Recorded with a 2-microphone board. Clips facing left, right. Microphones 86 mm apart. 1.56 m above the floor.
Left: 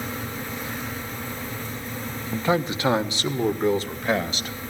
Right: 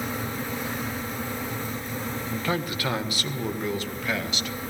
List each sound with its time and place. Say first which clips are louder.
2.3 s a man speaking: left 7 dB; 20° left (ahead or behind), 1.2 m; by 4.5 s 35° left (ahead or behind), 2.5 m